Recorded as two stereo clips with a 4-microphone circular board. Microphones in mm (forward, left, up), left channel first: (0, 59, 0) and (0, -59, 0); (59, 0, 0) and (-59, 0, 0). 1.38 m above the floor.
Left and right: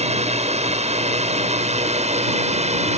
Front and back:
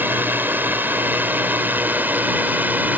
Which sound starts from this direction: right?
A drone, at 0.0 s.